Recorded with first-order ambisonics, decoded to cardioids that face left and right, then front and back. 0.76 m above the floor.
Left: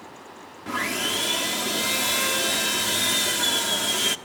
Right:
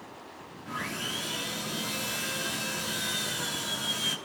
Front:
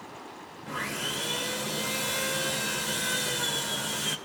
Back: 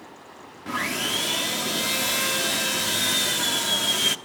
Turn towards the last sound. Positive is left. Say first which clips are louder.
# left 8 dB, back 6 dB
turn(degrees=145)